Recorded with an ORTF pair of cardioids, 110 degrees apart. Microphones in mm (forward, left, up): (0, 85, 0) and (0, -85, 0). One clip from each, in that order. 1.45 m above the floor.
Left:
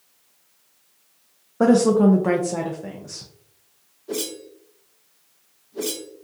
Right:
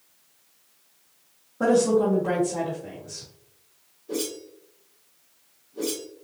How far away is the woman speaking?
About 0.7 m.